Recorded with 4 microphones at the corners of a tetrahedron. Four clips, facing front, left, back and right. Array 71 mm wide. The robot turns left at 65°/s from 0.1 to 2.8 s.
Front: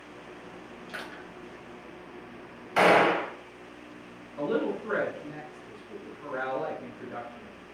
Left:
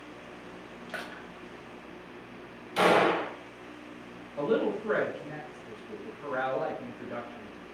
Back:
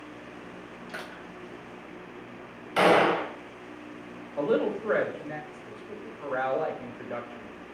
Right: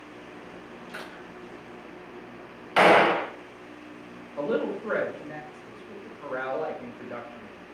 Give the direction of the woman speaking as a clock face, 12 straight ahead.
5 o'clock.